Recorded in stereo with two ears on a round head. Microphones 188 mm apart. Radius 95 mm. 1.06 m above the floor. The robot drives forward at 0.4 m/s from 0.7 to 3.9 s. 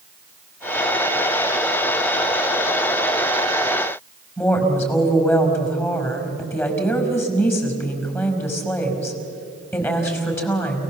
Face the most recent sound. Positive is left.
turn(degrees=10)  # may be behind; listen again after turning